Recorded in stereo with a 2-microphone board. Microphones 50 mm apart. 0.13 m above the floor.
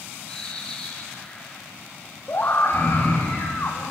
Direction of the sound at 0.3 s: 15° left (ahead or behind).